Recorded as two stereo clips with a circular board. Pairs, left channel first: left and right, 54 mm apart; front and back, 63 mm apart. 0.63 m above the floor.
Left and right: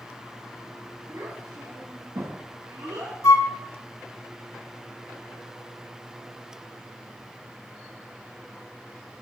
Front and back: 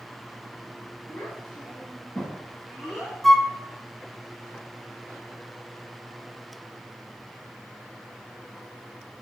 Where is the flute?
90° left, 0.8 m.